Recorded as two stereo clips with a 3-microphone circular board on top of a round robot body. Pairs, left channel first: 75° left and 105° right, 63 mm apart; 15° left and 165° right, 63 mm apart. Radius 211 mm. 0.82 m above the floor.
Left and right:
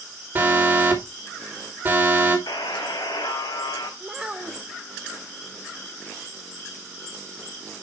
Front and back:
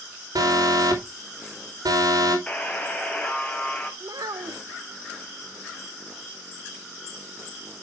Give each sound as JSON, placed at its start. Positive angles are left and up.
{"t": 0.3, "sound": "an alarm", "azimuth_deg": -160, "distance_m": 2.5}
{"t": 2.5, "sound": "a buzzer", "azimuth_deg": 85, "distance_m": 1.4}
{"t": 4.0, "sound": "a child speaking", "azimuth_deg": 175, "distance_m": 0.7}